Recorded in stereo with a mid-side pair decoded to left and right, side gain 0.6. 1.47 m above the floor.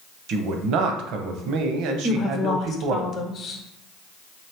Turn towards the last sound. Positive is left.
turn(degrees=40)